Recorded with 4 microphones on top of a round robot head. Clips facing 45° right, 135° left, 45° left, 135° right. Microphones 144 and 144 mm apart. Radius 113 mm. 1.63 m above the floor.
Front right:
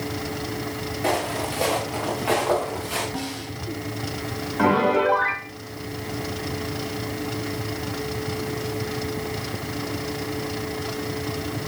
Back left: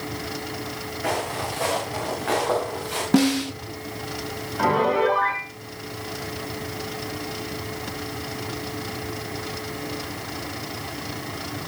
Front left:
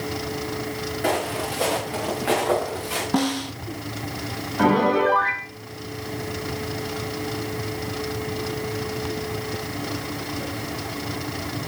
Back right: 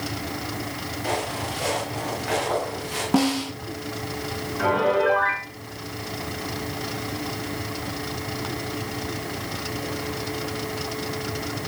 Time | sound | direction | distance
1.0 | footsteps | 20° left | 8 m
3.1 | a snare drum | 140° left | 1.0 m
4.6 | a piano | 25° left | 6.5 m